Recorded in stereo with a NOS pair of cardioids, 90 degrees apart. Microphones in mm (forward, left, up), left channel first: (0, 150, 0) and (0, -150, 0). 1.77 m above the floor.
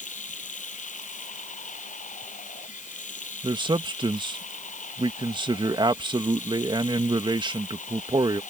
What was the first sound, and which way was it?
Running water, 25° left.